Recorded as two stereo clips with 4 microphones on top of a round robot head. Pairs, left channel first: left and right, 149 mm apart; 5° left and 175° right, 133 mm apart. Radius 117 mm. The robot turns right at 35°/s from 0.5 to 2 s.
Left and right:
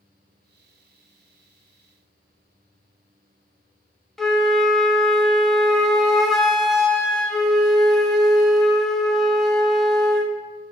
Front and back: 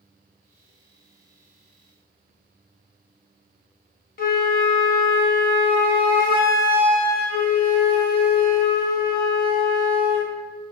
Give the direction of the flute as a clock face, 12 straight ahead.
12 o'clock.